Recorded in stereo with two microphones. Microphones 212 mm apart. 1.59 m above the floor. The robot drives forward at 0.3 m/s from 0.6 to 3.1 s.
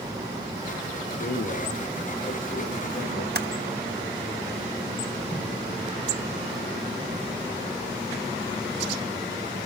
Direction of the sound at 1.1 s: 55° left (ahead or behind).